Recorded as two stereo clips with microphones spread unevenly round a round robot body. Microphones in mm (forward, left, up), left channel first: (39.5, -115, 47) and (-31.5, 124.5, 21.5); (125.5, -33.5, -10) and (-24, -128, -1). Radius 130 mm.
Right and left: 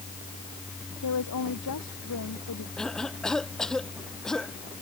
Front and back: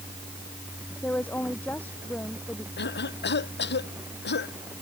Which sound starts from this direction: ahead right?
A woman speaking, at 1.0 s.